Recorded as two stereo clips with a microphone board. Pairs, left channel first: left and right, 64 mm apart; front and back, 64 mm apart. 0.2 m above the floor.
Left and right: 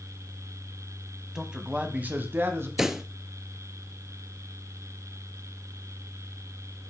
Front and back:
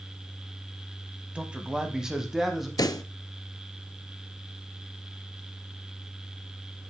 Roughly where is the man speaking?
Behind.